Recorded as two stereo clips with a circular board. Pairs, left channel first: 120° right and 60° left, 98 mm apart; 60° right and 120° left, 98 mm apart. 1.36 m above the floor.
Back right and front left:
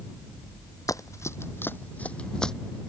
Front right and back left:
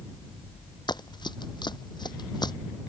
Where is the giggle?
No giggle in this recording.